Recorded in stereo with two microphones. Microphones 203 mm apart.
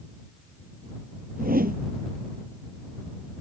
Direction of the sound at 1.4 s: 45° right (ahead or behind).